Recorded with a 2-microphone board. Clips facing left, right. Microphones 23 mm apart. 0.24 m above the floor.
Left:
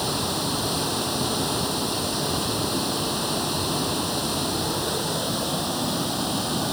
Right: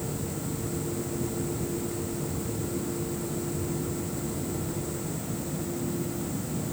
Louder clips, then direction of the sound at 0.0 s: Left 8 dB; 70° left (ahead or behind).